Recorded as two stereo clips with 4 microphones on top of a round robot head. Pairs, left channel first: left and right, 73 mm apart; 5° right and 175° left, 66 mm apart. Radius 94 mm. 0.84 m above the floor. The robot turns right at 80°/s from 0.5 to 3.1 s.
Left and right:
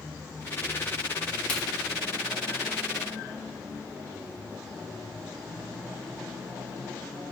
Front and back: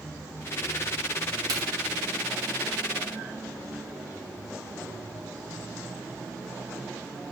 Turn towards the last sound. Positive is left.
turn(degrees=-75)